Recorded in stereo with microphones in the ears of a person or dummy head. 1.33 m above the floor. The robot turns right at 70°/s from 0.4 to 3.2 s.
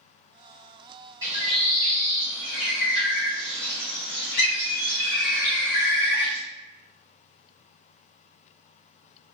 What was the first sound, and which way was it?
A bird, 20° right.